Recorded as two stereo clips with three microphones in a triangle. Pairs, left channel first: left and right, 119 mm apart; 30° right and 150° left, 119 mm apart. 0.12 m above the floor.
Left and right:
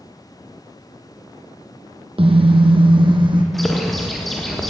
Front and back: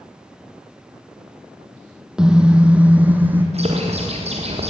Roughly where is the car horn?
Behind right.